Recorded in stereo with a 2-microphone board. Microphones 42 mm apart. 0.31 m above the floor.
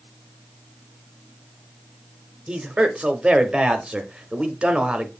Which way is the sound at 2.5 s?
25° right (ahead or behind).